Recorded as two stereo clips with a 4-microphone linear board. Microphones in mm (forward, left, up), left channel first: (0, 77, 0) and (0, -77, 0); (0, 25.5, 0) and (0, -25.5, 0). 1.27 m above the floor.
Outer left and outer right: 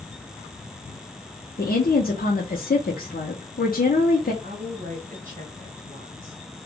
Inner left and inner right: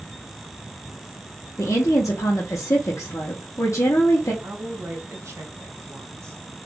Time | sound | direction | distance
1.6 | a woman speaking | 65° left (ahead or behind) | 0.8 m
4.4 | a woman speaking | 55° right (ahead or behind) | 1.4 m